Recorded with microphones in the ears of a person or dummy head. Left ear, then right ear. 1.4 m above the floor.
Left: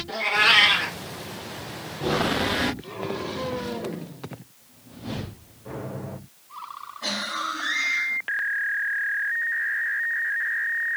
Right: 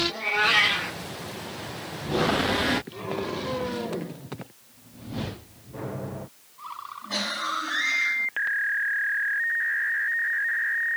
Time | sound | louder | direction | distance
0.1 | a cat meowing | left 9 dB | 45° left (ahead or behind) | 1.6 m